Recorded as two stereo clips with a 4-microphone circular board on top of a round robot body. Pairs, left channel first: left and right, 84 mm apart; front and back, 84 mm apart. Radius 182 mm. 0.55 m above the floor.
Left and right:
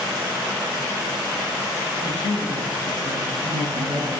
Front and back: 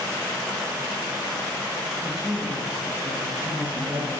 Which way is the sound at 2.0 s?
100° right.